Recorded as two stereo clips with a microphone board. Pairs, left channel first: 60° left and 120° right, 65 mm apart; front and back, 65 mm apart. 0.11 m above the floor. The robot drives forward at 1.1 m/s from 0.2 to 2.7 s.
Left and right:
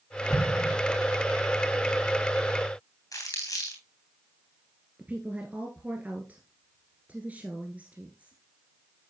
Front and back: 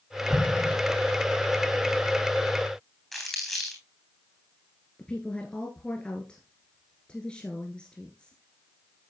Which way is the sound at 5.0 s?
70° right.